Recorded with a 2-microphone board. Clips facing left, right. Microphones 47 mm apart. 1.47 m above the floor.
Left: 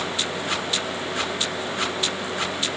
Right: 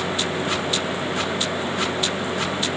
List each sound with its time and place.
Only background noise.